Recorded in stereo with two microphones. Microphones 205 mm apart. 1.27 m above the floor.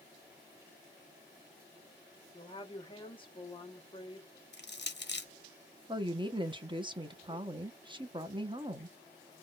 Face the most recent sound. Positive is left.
turn(degrees=-25)  # may be behind; listen again after turning